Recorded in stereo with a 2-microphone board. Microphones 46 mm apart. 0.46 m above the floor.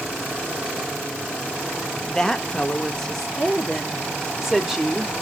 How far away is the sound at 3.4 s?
About 1.1 m.